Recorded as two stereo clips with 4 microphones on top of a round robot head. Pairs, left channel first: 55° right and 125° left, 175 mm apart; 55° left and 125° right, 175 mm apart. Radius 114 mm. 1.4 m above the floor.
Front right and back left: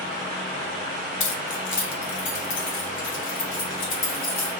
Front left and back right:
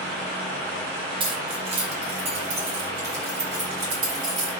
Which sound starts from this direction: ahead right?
Keys jangling, at 1.2 s.